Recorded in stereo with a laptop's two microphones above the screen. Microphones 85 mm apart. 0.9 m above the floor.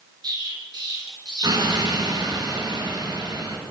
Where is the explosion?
60° right (ahead or behind), 3 m.